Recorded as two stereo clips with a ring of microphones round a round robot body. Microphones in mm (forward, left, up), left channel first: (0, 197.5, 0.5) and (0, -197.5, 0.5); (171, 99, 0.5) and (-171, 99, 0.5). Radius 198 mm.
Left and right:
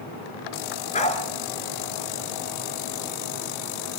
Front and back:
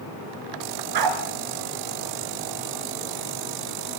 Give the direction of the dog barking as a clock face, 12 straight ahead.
7 o'clock.